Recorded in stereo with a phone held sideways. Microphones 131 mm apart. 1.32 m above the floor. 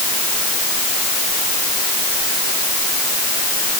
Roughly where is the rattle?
I don't hear a rattle.